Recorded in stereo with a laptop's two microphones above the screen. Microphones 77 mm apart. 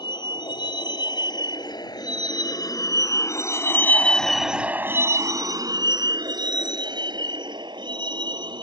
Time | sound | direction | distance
0.0 | a vehicle | 75° left (ahead or behind) | ?